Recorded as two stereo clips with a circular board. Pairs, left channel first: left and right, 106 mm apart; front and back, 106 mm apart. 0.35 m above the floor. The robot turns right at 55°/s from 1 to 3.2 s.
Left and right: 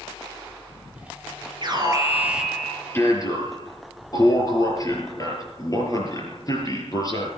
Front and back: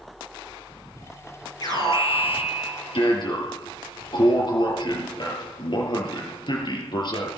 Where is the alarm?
50° right, 5.5 m; by 7.3 s 35° left, 5.5 m.